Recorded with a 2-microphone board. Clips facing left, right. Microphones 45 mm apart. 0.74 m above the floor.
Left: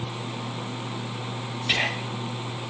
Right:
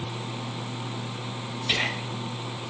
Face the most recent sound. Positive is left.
turn(degrees=25)  # may be behind; listen again after turning